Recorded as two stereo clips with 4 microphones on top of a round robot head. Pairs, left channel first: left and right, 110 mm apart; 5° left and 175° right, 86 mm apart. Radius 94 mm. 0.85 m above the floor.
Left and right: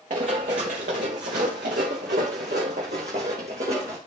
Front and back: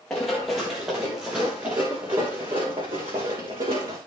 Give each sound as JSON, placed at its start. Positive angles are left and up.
{"t": 0.1, "sound": "running footsteps", "azimuth_deg": -80, "distance_m": 4.0}